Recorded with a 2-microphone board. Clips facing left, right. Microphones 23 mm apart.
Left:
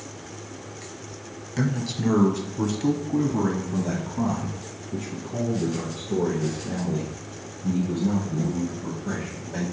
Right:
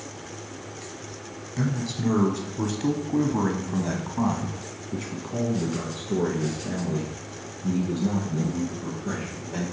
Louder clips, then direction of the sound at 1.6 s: Left 2 dB; 15° left (ahead or behind).